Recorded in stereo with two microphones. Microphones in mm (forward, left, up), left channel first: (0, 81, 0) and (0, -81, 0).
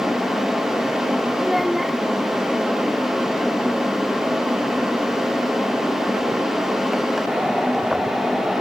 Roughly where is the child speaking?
Centre.